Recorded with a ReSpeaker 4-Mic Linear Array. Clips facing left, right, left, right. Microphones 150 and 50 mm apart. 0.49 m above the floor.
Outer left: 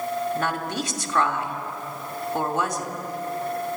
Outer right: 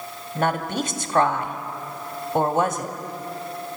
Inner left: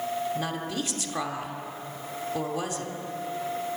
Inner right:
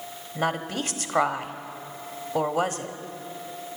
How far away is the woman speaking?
About 1.4 m.